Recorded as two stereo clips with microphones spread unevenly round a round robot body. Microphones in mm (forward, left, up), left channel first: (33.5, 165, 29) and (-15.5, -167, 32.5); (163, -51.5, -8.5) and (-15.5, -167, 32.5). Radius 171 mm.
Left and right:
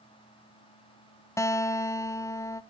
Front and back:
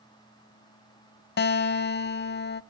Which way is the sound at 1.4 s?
Straight ahead.